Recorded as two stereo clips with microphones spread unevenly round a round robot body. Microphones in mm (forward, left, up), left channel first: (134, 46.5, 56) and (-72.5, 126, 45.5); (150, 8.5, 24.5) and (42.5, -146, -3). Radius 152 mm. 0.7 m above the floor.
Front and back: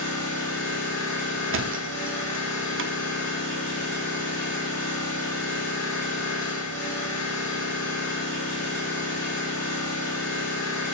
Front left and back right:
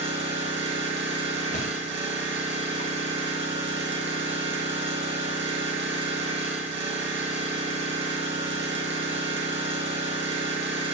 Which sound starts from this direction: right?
An engine running, at 0.0 s.